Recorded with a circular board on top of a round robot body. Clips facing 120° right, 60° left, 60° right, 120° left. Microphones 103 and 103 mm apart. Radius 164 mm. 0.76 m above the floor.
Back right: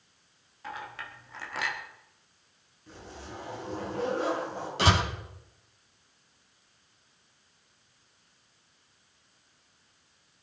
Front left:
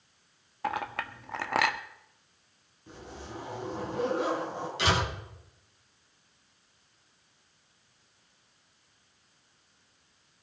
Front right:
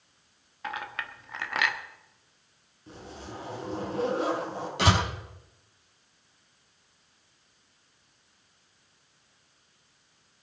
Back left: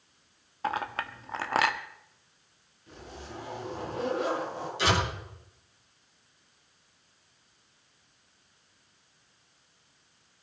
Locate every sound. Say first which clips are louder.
0.6 s a clink: front left 8 dB, back left 5 dB; 70° left, 1.3 m
2.9 s a zipper: front left 1 dB, front right 2 dB; 10° right, 7.5 m
4.8 s a door slam: back right 3 dB, front right 2 dB; 75° right, 6 m